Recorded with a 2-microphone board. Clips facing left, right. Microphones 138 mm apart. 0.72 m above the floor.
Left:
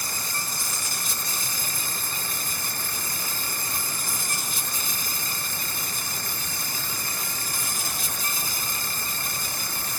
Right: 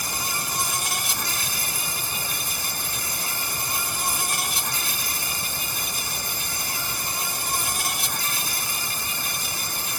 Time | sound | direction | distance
0.0 | an insect | 75° right (ahead or behind) | ?